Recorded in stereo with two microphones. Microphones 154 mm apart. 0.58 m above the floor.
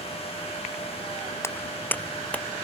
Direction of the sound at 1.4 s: 15° left (ahead or behind).